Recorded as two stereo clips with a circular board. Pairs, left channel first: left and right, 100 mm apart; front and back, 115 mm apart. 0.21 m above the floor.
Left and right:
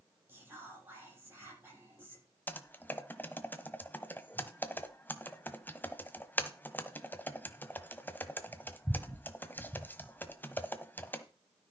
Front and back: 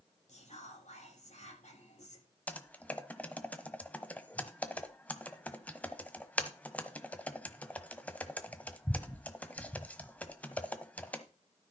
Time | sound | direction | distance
0.3 | whispering | 20° right | 9 m
2.5 | typing on a keyboard | 60° left | 1.2 m